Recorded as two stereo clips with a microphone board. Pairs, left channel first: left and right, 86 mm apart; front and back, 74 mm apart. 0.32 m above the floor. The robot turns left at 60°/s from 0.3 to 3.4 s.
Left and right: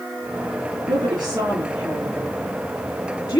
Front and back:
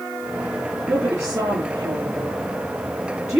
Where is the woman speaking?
110° right, 4 m; by 3.4 s 100° left, 4 m.